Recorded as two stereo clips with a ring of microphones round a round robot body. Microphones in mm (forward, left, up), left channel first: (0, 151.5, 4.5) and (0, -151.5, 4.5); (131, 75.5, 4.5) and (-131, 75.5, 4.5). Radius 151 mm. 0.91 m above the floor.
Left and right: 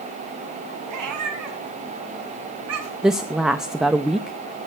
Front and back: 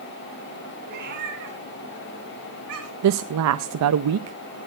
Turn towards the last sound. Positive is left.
turn(degrees=180)